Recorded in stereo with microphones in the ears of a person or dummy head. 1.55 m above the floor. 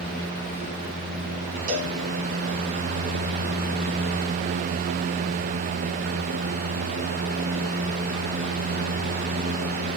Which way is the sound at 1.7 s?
45° right (ahead or behind).